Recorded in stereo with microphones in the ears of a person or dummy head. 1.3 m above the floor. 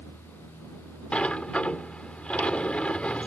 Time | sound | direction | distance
1.1 | a sliding door | 5° left (ahead or behind) | ?